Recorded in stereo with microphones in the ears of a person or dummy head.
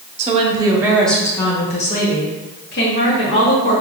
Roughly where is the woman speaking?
Right.